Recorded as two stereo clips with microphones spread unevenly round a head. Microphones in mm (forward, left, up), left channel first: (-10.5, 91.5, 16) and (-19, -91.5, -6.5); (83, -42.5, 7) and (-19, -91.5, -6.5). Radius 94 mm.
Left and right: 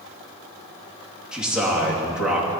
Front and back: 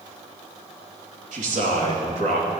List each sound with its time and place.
1.3 s a man speaking: 175° right, 2.5 m